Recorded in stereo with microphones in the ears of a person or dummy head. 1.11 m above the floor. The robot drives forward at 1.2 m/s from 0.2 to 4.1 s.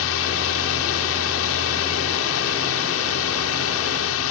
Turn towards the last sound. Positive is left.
turn(degrees=70)  # may be behind; listen again after turning